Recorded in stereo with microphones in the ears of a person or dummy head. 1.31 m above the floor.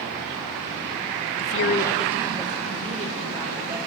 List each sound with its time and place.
1.4 s a woman speaking: 70° left (ahead or behind), 0.6 m; by 3.8 s 35° right (ahead or behind), 3 m